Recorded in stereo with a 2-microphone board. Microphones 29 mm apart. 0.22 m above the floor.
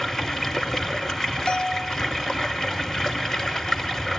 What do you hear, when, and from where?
0.0 s running water: 15° left (ahead or behind), 0.9 m
1.5 s a bell: 30° left (ahead or behind), 0.5 m